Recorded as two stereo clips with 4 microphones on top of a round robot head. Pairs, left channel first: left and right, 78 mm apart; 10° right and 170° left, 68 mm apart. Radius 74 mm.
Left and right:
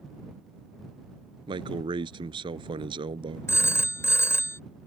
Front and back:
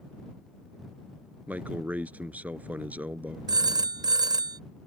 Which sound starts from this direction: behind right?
A man speaking, at 1.5 s.